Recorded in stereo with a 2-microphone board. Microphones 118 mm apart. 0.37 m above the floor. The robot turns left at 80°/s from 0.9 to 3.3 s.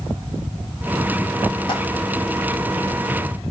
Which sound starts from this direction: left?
A dropped coin, at 1.7 s.